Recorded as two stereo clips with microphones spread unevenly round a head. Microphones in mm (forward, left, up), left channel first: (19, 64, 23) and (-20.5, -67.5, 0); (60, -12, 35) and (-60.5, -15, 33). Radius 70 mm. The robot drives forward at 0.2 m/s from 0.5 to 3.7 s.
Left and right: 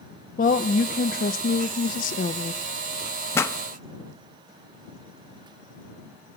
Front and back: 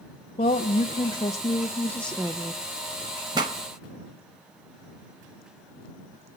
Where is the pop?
130° left, 0.7 m.